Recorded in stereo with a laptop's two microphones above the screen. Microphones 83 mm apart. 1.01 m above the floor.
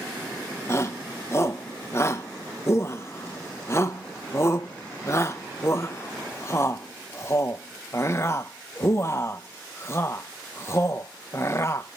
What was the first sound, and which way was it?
A shout, 35° left (ahead or behind).